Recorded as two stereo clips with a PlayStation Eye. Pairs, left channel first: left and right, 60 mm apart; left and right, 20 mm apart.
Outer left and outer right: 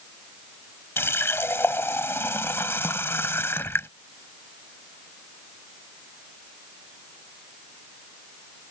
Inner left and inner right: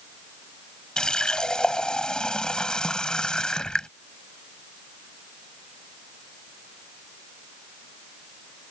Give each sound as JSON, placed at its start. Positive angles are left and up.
{"t": 1.0, "sound": "a running tap", "side_deg": 45}